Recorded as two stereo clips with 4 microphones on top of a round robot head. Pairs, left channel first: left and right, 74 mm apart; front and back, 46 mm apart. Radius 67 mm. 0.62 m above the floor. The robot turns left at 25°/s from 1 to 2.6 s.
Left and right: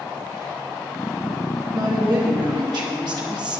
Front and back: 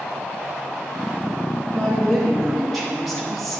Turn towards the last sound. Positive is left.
turn(degrees=-90)